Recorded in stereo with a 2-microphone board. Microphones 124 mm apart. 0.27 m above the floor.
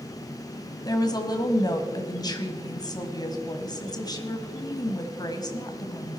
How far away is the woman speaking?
About 1.4 m.